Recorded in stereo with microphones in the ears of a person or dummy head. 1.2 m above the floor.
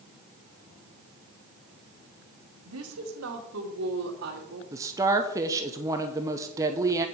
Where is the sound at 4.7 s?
15° right (ahead or behind), 0.6 m.